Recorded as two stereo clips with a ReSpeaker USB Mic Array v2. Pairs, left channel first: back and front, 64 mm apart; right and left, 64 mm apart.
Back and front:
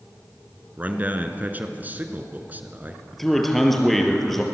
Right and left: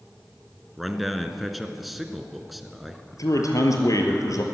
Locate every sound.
0.8 s a man speaking: 5° left, 1.5 m
3.1 s a man speaking: 95° right, 3 m